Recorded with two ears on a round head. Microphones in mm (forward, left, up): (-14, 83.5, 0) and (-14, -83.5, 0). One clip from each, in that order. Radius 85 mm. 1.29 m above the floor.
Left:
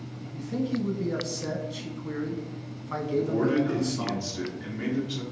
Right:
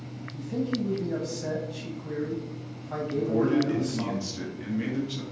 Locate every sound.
0.3 s a man speaking: 15° left (ahead or behind), 0.8 m
3.1 s a man speaking: 5° right (ahead or behind), 1.1 m